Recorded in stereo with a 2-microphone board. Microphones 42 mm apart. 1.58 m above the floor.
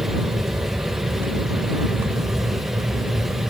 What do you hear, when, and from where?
0.0 s an aircraft: 65° right (ahead or behind)